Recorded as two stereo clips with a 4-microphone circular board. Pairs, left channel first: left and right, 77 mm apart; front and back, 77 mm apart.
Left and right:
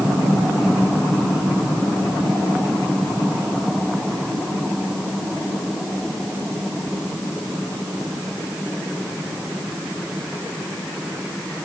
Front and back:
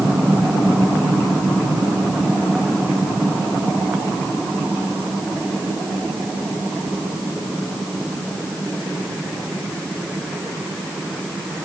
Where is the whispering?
I don't hear whispering.